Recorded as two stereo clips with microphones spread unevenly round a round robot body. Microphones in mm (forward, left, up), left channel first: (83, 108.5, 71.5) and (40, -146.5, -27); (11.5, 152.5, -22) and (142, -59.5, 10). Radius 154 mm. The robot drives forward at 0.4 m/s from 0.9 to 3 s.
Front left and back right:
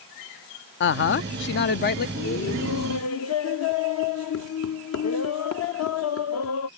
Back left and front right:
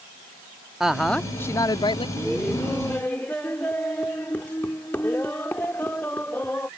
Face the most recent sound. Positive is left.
turn(degrees=45)